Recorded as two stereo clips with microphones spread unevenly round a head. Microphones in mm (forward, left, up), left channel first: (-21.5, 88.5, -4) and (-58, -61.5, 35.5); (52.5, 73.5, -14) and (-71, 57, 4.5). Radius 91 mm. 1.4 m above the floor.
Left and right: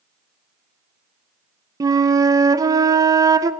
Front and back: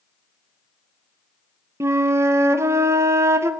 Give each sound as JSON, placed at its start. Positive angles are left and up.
{"t": 1.8, "sound": "a flute", "azimuth_deg": -130, "distance_m": 0.6}